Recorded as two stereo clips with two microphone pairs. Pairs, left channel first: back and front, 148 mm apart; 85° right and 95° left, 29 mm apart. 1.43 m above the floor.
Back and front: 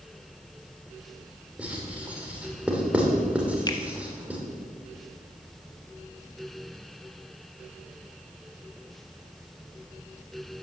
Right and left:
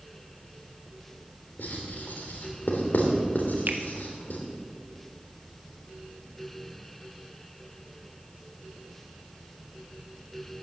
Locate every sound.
1.6 s writing: 80° right, 3 m
3.7 s a finger snap: 110° left, 1.2 m